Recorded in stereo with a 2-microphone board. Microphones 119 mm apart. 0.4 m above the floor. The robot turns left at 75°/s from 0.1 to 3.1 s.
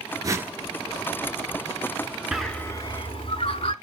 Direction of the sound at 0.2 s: 35° right (ahead or behind).